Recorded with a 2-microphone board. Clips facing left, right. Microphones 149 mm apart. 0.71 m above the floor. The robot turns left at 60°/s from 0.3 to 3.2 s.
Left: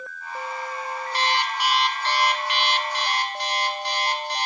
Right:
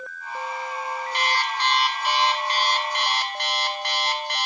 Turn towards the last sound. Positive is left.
turn(degrees=-85)